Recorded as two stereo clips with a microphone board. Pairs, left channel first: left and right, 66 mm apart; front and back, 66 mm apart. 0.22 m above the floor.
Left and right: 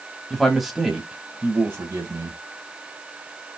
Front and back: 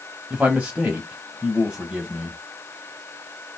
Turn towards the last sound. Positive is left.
turn(degrees=-110)